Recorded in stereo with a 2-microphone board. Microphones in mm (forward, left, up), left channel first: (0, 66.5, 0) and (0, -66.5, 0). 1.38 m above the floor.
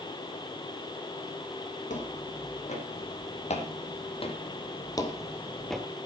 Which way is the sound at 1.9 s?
70° left (ahead or behind).